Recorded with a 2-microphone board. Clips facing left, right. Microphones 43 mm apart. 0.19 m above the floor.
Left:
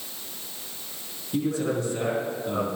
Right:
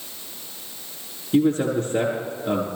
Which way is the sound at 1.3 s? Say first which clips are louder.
Right 6 dB; 45° right (ahead or behind).